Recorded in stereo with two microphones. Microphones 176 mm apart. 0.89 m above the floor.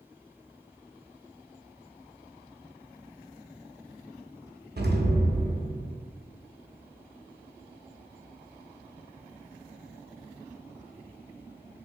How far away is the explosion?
About 0.7 m.